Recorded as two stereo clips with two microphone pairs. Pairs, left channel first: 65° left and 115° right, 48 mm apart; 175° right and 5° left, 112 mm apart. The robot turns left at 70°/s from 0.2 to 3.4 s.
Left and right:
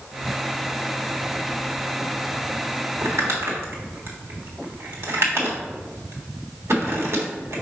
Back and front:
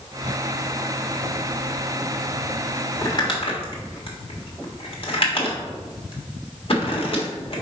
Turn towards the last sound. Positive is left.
turn(degrees=-135)